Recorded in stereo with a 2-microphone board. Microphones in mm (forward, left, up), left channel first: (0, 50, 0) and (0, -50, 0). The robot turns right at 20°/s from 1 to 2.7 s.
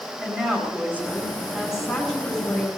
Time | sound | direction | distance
0.2 | a woman speaking | 20° right | 5.5 m